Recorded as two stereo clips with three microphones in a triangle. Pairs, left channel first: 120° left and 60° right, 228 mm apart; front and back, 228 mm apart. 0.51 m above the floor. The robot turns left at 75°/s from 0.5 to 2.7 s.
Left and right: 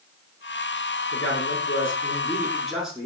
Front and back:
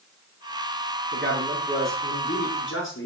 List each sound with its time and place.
1.1 s a man speaking: 145° left, 7.5 m; by 3.1 s 30° left, 7.5 m